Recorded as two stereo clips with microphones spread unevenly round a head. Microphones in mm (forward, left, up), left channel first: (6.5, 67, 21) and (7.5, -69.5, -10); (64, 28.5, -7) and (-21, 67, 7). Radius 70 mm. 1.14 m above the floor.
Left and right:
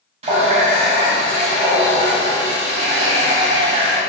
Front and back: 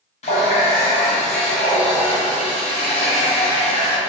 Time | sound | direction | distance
0.2 | a running tap | 40° right | 0.8 m